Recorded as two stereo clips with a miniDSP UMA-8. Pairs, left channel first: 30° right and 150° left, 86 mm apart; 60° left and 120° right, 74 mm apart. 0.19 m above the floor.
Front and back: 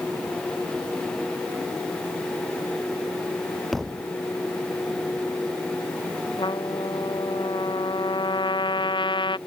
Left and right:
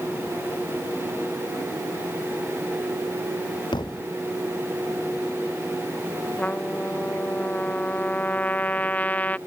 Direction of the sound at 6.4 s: 10° right.